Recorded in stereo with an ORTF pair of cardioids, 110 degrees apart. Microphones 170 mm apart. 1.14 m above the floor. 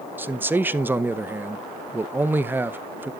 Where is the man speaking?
10° right, 0.6 m.